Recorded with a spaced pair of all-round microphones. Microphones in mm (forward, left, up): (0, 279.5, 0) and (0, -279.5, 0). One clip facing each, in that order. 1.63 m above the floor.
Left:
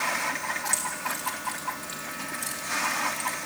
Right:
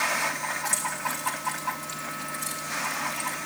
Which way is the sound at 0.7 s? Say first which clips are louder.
Right 1 dB; 80° right.